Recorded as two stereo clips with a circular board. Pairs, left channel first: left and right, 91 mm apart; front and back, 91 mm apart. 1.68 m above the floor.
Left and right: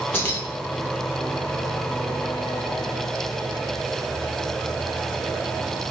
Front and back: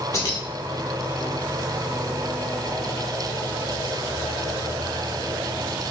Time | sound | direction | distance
0.1 | keys jangling | 35° left | 1.2 m